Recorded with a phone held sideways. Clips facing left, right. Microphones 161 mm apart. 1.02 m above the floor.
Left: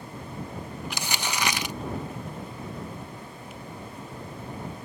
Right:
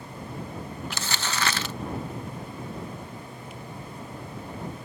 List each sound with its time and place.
0.9 s crumpling: 15° left (ahead or behind)